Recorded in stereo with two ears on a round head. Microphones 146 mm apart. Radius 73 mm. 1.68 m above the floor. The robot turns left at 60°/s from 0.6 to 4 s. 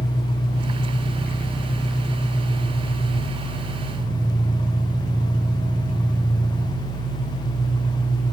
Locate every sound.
0.0 s an engine running: 100° right, 2.5 m; by 8.3 s 55° left, 2.5 m